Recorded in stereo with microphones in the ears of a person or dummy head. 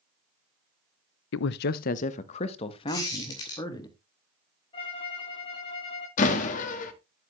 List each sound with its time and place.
1.3 s a man speaking: 65° left (ahead or behind), 0.6 m; by 3.9 s 25° left (ahead or behind), 2 m
2.9 s a squeak: 15° left (ahead or behind), 2.5 m
4.7 s a violin: 25° left (ahead or behind), 6 m
6.2 s a door slam: 40° left (ahead or behind), 1.5 m